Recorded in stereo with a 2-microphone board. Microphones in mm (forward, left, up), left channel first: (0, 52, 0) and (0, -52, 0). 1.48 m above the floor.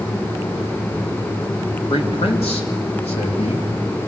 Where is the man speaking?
85° left, 3.5 m.